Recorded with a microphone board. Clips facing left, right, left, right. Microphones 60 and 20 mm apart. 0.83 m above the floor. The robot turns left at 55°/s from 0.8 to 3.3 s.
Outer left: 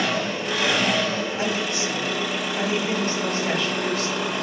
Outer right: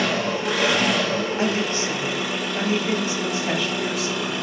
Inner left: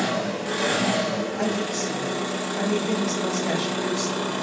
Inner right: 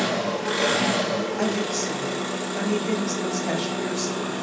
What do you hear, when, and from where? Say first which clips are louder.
0.0 s an engine running: outer right 2 dB, inner right 1 dB; 90° right, 1.2 m; by 4.4 s 130° left, 1.2 m
1.4 s a woman speaking: outer right 2 dB, inner right 1 dB; 65° right, 0.8 m; by 4.3 s 170° right, 0.8 m